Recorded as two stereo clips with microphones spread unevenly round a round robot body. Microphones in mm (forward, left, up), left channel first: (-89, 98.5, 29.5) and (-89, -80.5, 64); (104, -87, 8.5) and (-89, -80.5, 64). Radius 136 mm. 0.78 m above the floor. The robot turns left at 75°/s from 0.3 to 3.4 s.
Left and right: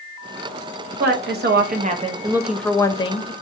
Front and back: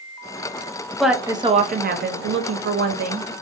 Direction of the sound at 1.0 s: 75° right.